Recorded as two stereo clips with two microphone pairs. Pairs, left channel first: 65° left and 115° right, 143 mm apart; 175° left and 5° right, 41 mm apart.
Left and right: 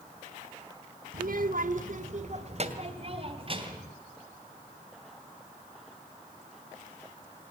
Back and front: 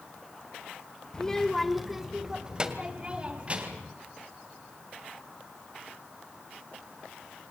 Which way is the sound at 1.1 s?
115° right.